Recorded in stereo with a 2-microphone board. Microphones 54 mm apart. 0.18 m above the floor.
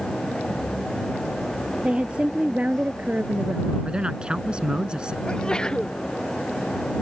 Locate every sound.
1.8 s a woman speaking: 20° right (ahead or behind); by 3.8 s 35° right (ahead or behind)
3.9 s a man speaking: 20° right (ahead or behind)
5.2 s a sneeze: 15° left (ahead or behind)